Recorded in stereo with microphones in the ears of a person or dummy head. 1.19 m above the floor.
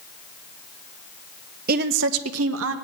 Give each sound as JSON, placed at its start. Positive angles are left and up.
{"t": 1.7, "sound": "a woman speaking", "side_deg": -45, "distance_m": 1.0}